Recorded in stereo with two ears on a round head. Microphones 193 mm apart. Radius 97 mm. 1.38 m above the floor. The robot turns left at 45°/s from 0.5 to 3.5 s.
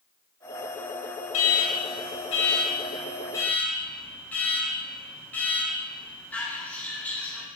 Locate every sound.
1.3 s an alarm: 105° left, 2 m; by 7.5 s 10° left, 2 m